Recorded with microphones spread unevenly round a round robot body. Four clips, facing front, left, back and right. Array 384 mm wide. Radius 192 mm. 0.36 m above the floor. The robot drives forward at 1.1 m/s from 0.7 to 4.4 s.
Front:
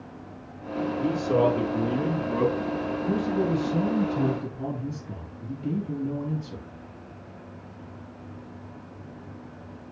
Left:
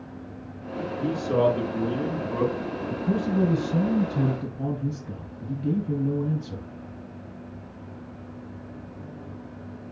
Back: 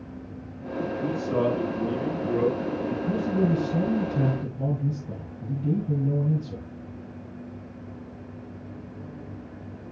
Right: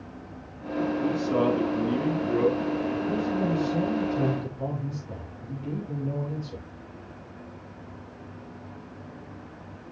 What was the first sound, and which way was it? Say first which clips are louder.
A man speaking: left 4 dB, front 3 dB; 25° left.